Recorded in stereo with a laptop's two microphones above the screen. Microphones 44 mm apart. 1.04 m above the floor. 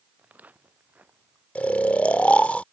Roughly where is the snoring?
Left.